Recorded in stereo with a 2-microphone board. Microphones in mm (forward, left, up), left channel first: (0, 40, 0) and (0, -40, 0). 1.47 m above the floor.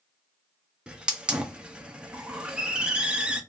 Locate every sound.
0.9 s a hiss: 10° right (ahead or behind), 0.6 m